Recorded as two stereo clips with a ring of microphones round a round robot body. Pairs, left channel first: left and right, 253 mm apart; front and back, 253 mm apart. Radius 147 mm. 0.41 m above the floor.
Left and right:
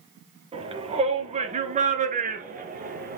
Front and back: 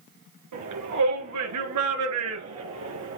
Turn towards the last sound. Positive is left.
turn(degrees=-145)